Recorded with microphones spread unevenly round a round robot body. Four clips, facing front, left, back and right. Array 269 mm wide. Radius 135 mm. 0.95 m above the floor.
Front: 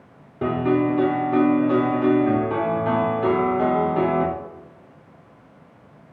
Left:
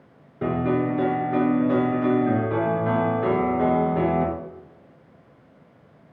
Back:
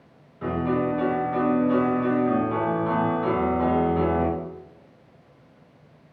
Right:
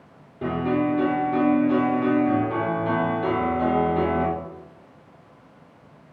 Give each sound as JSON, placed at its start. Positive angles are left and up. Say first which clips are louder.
{"t": 0.4, "sound": "a piano", "louder": "even, front 4 dB", "azimuth_deg": 10, "distance_m": 3.5}